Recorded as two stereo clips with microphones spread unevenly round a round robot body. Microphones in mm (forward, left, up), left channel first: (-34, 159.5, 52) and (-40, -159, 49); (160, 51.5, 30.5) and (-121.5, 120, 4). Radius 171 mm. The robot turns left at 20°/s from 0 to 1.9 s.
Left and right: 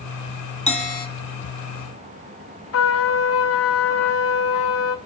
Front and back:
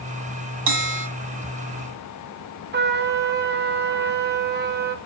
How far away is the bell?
About 2 m.